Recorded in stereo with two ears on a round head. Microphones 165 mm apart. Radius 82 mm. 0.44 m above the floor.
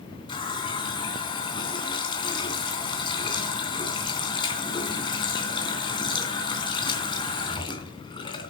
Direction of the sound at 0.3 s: 25° left (ahead or behind).